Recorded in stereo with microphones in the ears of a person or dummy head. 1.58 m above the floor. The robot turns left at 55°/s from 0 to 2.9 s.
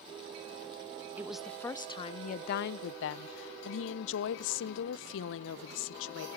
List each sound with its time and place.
1.2 s a woman speaking: 170° right, 0.8 m; by 6.3 s 95° left, 0.8 m